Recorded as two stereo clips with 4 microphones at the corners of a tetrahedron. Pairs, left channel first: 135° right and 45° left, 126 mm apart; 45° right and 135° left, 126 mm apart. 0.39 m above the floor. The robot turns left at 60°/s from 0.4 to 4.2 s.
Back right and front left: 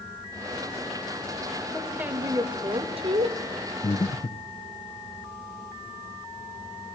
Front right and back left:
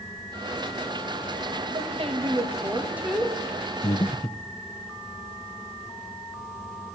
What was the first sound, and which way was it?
A woman speaking, 135° left.